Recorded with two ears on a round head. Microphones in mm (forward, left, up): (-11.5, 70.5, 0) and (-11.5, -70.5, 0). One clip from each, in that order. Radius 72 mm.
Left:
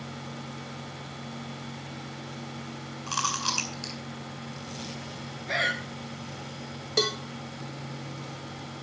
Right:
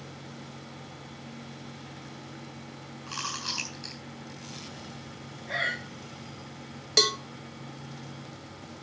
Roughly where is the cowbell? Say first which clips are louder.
Right 3 dB; right.